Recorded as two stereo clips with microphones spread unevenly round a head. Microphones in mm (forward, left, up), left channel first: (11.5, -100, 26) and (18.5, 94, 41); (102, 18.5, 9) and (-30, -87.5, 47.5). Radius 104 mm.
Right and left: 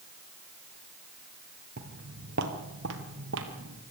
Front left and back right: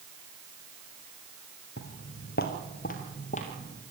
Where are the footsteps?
70° left, 1.8 m; by 3.8 s 110° left, 2.5 m.